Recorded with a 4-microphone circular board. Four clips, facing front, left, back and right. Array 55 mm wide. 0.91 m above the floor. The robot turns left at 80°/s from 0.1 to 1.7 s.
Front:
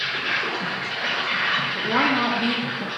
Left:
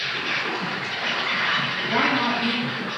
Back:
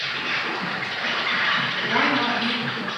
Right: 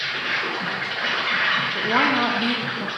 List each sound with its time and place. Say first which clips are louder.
0.0 s an insect: right 1 dB, front 1 dB; 5° left, 1.8 m; by 3.0 s 120° right, 1.8 m
1.8 s a woman speaking: right 3 dB, front 2 dB; 60° right, 0.5 m